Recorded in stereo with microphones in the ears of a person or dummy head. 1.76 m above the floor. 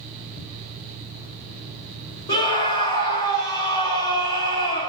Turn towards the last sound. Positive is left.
turn(degrees=30)  # may be behind; listen again after turning